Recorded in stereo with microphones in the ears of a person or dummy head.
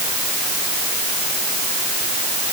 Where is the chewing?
No chewing in this recording.